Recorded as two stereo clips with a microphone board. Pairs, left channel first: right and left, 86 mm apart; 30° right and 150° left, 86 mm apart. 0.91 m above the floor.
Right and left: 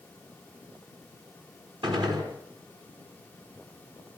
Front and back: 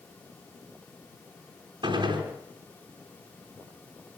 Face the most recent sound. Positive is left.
turn(degrees=120)